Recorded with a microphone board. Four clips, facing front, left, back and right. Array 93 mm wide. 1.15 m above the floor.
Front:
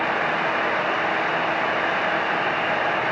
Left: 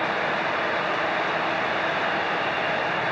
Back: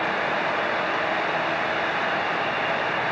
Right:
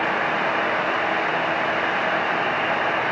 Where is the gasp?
No gasp in this recording.